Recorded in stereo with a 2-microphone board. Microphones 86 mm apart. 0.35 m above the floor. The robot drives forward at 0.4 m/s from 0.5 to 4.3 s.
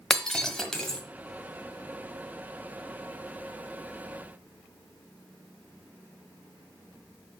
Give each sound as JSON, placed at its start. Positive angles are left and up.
{"t": 0.1, "sound": "breaking glass", "side_deg": 10, "distance_m": 1.1}